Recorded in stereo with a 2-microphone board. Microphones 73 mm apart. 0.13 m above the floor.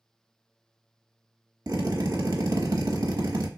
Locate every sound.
1.7 s a drill: 60° right (ahead or behind), 1.0 m